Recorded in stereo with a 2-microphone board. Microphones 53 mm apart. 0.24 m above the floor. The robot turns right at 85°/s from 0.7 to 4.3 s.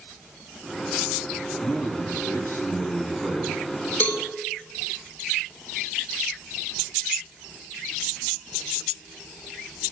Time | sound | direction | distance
1.6 | a man speaking | 45° left | 2.5 m
4.0 | a cowbell | 35° left (ahead or behind) | 0.8 m